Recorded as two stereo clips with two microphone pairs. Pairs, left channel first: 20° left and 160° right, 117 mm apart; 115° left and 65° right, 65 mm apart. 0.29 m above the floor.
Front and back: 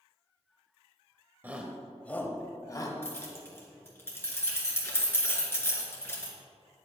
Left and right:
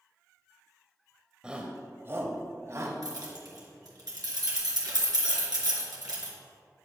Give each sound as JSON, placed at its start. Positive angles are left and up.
{"t": 1.4, "sound": "a shout", "azimuth_deg": -120, "distance_m": 1.1}
{"t": 3.0, "sound": "keys jangling", "azimuth_deg": -50, "distance_m": 3.0}